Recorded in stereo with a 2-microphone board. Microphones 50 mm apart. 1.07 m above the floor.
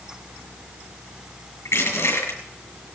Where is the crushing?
65° left (ahead or behind), 5.5 m.